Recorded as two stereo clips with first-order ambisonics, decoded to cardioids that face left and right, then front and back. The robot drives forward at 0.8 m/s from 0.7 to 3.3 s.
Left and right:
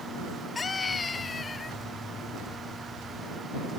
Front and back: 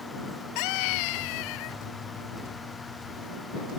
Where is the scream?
15° left.